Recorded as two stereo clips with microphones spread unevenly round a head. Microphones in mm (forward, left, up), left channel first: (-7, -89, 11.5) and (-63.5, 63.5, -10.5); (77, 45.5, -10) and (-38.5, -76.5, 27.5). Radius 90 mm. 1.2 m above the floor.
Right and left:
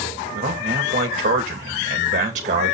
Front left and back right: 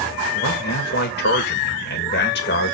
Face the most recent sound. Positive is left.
turn(degrees=60)